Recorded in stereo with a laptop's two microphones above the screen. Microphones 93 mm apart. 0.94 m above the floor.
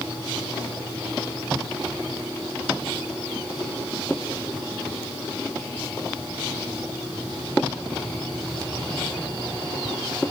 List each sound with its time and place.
Only background noise.